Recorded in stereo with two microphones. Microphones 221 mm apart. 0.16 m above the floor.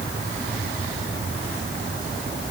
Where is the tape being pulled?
No tape being pulled in this recording.